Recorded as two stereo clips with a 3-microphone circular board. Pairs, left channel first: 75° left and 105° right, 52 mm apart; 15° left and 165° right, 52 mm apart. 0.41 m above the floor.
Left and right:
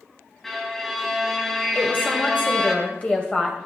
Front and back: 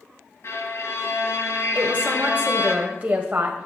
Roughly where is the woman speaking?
Behind left.